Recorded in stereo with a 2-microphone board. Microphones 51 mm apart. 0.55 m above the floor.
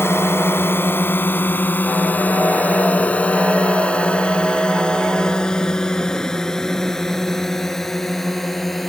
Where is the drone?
55° left (ahead or behind); by 8.9 s 5° left (ahead or behind).